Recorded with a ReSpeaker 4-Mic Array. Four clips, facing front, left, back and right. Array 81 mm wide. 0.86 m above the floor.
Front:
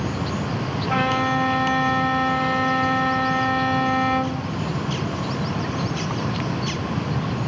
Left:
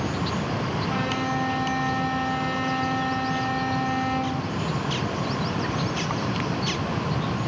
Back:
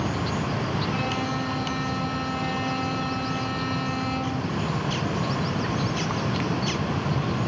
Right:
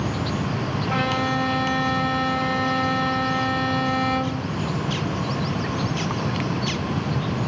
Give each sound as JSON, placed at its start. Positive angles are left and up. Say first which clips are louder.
{"t": 0.9, "sound": "a violin", "louder": "right 6 dB, front 6 dB", "azimuth_deg": -20, "distance_m": 0.6}